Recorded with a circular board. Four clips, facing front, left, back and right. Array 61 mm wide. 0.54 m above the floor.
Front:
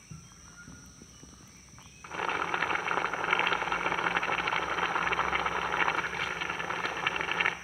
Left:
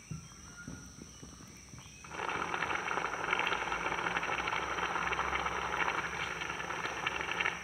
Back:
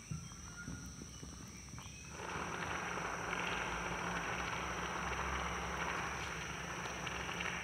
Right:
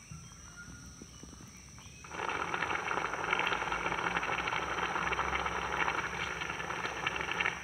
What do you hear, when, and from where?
0.1 s running footsteps: 90° left, 2.5 m; by 3.0 s 110° left, 6 m
2.0 s boiling: 5° right, 1.3 m